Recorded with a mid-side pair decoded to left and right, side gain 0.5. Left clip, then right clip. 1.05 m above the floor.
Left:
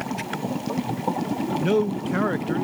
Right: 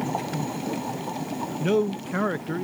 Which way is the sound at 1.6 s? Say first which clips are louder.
Even; 5° left.